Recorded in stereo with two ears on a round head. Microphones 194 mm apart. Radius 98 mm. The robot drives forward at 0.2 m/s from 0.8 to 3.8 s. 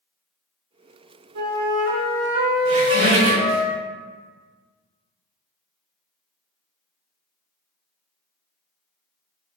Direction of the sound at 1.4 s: 80° right.